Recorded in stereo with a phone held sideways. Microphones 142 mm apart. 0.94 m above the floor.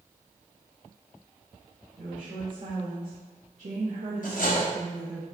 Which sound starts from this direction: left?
Cutlery clinking, at 4.2 s.